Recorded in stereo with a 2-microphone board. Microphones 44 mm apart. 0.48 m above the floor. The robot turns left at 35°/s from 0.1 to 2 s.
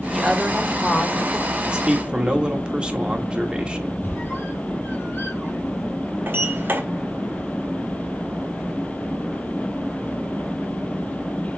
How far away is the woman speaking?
About 1.5 m.